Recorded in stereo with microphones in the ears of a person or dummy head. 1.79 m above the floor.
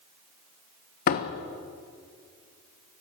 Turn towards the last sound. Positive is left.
turn(degrees=50)  # may be behind; listen again after turning